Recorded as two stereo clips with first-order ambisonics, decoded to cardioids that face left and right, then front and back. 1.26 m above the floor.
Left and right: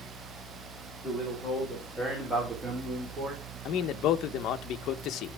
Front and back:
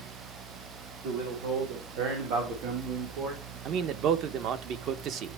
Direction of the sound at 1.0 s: 175° right.